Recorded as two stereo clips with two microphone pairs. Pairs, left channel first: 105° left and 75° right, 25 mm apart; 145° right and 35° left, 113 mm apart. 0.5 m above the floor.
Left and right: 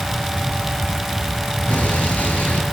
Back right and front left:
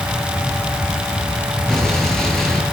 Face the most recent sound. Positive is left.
turn(degrees=130)